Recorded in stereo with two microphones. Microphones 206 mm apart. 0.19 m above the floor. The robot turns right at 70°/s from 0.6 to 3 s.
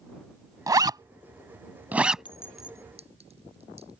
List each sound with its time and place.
0.7 s a zipper: 20° right (ahead or behind); by 2.2 s centre (ahead or behind)
2.2 s a clink: 25° left (ahead or behind); by 3.9 s 30° right (ahead or behind)